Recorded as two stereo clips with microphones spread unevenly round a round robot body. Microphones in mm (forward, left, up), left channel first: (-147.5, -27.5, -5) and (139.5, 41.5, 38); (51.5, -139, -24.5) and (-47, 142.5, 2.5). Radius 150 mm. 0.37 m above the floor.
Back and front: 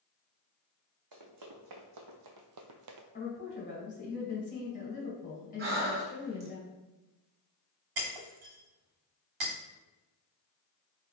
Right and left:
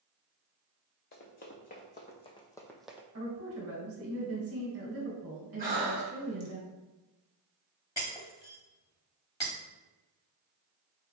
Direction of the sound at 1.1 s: 10° right.